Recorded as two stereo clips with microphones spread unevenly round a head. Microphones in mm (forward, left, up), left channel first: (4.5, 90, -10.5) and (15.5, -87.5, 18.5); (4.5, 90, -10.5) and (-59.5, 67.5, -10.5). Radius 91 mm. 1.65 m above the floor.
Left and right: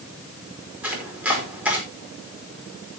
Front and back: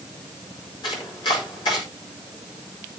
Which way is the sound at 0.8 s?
5° right.